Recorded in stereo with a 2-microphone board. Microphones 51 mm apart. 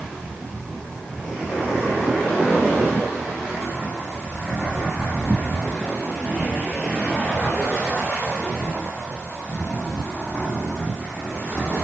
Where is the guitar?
I don't hear a guitar.